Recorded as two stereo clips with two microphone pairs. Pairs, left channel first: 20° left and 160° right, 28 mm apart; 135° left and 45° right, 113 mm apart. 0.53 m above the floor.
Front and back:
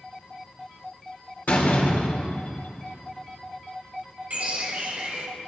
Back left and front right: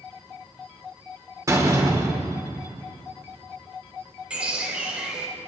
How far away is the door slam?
About 1.4 m.